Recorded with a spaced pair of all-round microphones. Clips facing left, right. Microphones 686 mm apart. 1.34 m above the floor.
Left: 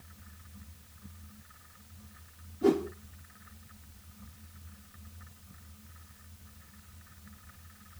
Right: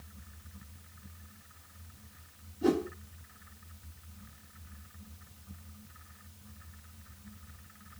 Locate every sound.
2.6 s a whoosh: 5° left (ahead or behind), 0.9 m